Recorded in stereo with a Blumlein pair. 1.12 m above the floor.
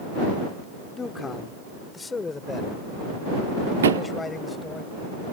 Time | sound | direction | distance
0.9 | a man speaking | 15° left | ?
3.8 | a thud | 65° right | ?